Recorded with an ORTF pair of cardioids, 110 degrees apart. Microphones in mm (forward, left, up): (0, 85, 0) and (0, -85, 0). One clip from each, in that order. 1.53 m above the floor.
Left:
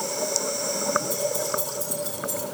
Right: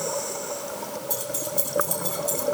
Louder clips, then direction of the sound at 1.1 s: Left 4 dB; 50° right.